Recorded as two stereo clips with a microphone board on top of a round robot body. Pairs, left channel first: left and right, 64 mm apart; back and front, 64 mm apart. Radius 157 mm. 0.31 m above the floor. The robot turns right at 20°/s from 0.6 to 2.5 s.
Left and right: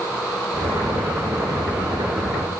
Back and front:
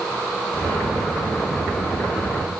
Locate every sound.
Only background noise.